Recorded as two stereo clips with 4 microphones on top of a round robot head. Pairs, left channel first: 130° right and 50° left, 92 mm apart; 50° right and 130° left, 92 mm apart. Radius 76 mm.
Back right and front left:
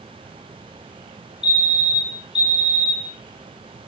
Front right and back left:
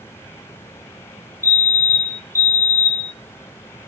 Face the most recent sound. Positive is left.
turn(degrees=-110)